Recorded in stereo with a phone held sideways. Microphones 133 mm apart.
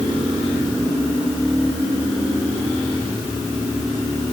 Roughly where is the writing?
I don't hear writing.